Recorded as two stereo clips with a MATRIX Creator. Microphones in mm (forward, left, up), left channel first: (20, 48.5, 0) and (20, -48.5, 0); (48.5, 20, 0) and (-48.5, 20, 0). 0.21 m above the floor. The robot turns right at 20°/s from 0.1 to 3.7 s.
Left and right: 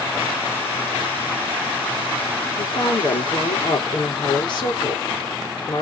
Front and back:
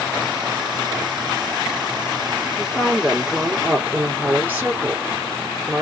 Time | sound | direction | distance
2.6 | a woman speaking | 90° left | 3.5 m